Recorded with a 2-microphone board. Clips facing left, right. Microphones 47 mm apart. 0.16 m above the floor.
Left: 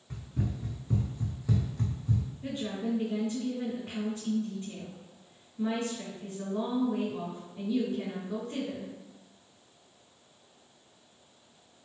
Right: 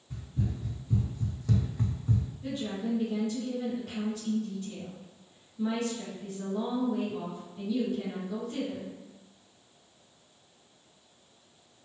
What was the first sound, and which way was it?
Running footsteps, 75° left (ahead or behind).